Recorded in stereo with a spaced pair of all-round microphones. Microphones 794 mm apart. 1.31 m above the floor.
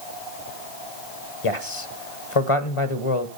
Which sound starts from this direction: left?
A man speaking, at 1.4 s.